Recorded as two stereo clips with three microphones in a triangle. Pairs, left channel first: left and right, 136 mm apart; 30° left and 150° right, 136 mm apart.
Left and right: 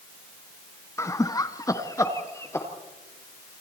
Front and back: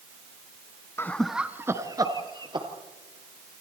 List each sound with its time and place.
1.0 s laughter: 65° left, 1.1 m; by 2.7 s 160° left, 2.5 m